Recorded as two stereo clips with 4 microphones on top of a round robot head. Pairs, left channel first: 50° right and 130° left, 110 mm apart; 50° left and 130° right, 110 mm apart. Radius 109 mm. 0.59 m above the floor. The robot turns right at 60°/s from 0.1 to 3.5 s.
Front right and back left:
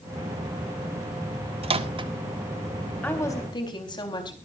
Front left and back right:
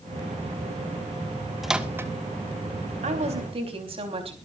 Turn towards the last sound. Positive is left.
turn(degrees=-100)